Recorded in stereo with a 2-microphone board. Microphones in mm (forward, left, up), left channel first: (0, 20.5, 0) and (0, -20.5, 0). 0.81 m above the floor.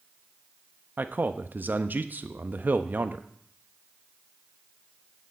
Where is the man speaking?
45° right (ahead or behind), 0.6 m.